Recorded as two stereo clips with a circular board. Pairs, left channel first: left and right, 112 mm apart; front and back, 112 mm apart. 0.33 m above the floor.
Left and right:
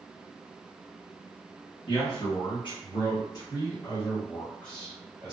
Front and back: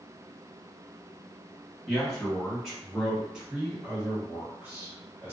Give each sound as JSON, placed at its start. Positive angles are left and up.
{"t": 1.9, "sound": "a man speaking", "azimuth_deg": 90, "distance_m": 1.9}